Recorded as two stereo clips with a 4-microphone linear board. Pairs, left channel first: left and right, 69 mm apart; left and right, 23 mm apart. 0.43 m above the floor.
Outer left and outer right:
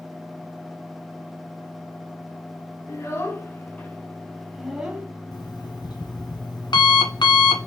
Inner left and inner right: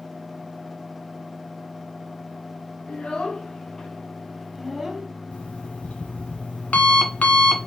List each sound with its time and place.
2.9 s a child speaking: 45° left (ahead or behind), 3.5 m; by 5.1 s 20° right (ahead or behind), 2 m
5.3 s an alarm clock: 80° left, 1.6 m